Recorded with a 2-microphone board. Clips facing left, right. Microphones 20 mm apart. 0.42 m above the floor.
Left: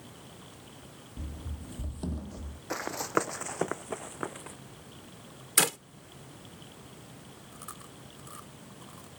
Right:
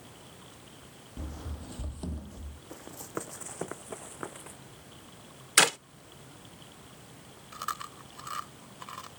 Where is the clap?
25° right (ahead or behind).